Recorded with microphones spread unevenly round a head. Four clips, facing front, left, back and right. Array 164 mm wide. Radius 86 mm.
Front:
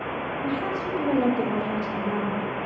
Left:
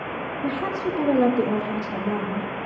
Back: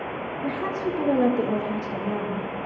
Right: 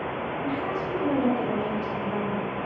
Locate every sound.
0.4 s a woman speaking: 120° left, 2 m